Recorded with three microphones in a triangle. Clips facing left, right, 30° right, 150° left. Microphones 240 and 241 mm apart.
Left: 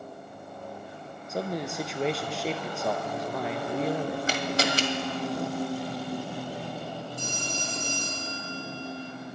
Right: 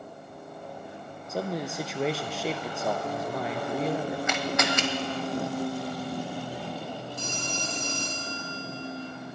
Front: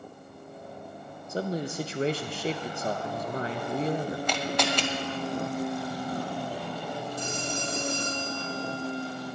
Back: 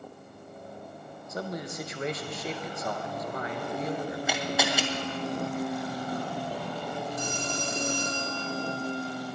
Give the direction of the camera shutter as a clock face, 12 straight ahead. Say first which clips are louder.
Even, back 1 dB; 10 o'clock.